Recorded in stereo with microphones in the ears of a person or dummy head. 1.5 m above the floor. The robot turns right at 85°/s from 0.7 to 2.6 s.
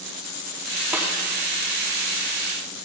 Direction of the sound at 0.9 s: 10° right (ahead or behind).